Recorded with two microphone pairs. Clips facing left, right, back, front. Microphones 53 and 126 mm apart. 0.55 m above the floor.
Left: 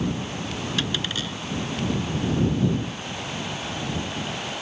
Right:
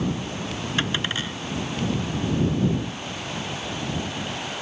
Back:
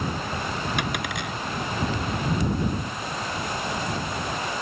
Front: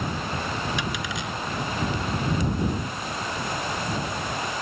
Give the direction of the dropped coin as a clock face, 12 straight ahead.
5 o'clock.